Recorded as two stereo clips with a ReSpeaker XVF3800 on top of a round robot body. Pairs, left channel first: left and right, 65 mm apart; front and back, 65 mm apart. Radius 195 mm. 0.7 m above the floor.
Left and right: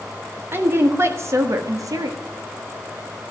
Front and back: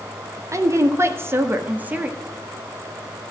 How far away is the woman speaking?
About 2 m.